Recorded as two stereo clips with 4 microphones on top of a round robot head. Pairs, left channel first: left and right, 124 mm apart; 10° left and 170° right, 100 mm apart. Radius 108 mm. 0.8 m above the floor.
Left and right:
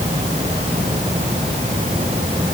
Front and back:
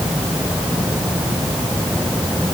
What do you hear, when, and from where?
Only background noise.